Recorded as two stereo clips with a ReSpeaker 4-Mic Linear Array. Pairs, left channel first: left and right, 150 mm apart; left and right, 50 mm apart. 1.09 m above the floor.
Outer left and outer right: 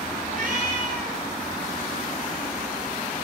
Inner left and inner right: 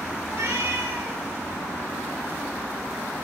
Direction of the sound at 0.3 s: 65° right (ahead or behind).